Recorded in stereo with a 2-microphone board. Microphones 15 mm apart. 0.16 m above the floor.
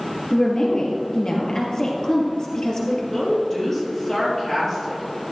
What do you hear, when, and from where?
0.3 s a woman speaking: 45° left (ahead or behind), 3 m
3.1 s a woman speaking: 25° left (ahead or behind), 4.5 m